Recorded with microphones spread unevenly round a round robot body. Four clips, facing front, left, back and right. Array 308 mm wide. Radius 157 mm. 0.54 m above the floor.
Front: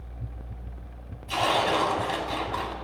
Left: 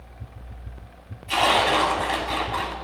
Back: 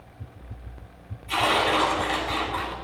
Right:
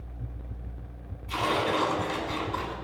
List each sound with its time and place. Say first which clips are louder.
1.3 s tearing paper: left 7 dB, back 1 dB; 85° left, 3 m